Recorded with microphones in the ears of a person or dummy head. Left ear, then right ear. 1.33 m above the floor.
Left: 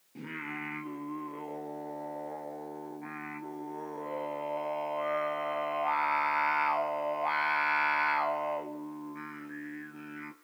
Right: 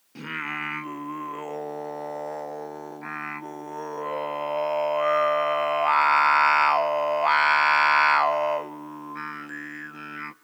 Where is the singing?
40° right (ahead or behind), 0.8 m.